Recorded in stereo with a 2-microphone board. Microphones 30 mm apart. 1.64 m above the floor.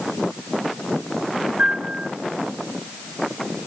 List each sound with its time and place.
1.6 s a piano: 50° right (ahead or behind), 8 m